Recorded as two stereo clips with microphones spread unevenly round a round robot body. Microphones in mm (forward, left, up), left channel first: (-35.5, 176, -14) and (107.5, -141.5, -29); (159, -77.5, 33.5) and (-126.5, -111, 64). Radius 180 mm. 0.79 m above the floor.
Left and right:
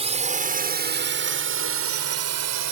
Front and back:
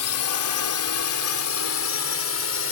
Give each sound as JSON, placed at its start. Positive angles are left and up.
{"t": 0.0, "sound": "a drone", "azimuth_deg": 5}